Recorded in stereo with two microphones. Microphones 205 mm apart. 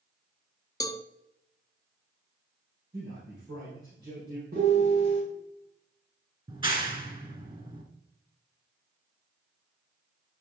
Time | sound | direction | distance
0.8 | a cowbell | 15° left (ahead or behind) | 0.5 m
2.9 | a man speaking | 55° right (ahead or behind) | 5 m
4.5 | a piano | 45° right (ahead or behind) | 5.5 m
6.5 | a clap | 25° right (ahead or behind) | 2 m